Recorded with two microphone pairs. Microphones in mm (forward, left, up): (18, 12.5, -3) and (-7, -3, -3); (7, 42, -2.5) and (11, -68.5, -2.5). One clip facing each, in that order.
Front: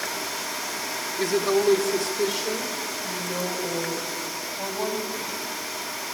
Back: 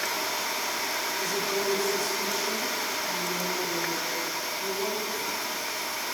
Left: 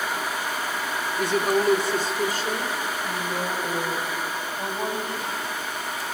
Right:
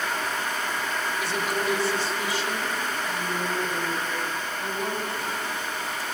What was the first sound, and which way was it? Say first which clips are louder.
A woman speaking: front 10 dB, left 9 dB; 55° left.